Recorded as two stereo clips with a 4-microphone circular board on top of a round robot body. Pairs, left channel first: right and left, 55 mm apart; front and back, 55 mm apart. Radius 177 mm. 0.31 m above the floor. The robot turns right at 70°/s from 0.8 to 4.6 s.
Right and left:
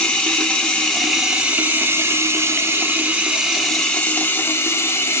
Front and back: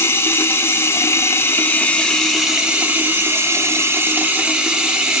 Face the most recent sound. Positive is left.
turn(degrees=-110)